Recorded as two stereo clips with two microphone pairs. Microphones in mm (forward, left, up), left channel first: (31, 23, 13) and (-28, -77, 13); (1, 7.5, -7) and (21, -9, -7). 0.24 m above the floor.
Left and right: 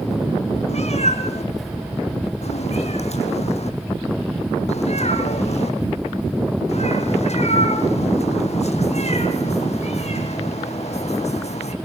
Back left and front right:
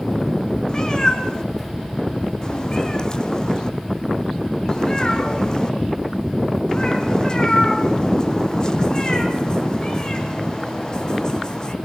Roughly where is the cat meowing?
Left.